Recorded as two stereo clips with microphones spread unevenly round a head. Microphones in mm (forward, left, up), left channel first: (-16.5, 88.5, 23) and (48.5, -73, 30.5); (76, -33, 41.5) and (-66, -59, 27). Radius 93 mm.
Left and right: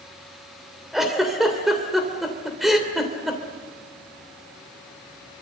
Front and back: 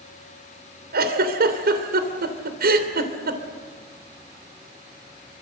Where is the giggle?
155° right, 3 m.